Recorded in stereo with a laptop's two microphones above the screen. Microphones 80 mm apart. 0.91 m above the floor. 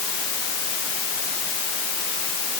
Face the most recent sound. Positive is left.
No sound to turn to.